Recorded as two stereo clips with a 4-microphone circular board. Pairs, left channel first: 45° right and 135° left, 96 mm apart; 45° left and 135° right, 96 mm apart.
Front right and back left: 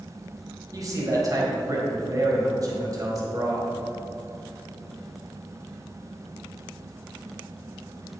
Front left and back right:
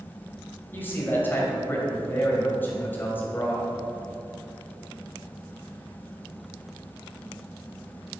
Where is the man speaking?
105° left, 2 m.